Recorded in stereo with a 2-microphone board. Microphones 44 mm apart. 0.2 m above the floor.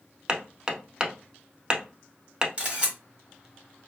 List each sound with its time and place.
0.3 s hammering: 20° right (ahead or behind), 0.5 m
2.6 s a camera shutter: 20° right (ahead or behind), 1.6 m